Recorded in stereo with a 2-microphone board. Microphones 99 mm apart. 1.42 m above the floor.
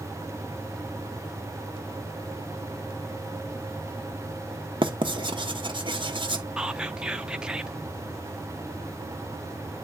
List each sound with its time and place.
4.8 s writing: 55° right (ahead or behind), 1.1 m
6.6 s whispering: 10° right (ahead or behind), 0.7 m